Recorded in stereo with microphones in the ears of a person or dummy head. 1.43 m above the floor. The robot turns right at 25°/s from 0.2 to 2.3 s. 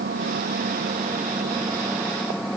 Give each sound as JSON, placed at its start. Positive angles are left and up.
{"t": 0.0, "sound": "an engine running", "azimuth_deg": -50}